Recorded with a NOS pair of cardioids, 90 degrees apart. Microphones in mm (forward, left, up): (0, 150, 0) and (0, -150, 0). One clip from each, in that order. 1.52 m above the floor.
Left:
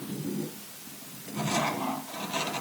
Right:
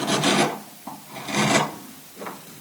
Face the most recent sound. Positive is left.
No sound to turn to.